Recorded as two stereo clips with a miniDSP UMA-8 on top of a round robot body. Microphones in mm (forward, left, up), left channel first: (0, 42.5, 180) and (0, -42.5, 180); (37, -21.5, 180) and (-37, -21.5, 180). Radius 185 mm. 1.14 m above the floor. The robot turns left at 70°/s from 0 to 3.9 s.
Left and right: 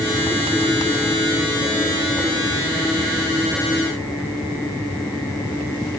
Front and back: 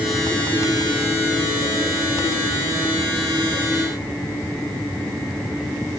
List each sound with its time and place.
Only background noise.